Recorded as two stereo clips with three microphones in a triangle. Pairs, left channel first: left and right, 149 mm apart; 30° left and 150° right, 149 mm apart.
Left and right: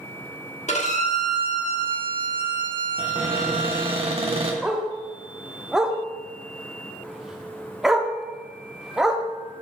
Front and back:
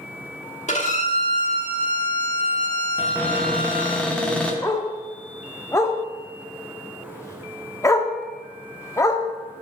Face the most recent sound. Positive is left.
turn(degrees=-5)